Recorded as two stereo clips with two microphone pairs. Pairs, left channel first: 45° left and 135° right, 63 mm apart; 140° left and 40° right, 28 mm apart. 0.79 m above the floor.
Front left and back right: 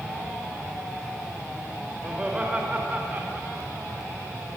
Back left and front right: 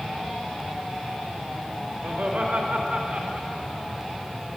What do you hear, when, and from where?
2.0 s laughter: 60° right, 3.5 m; by 3.9 s 95° right, 2.0 m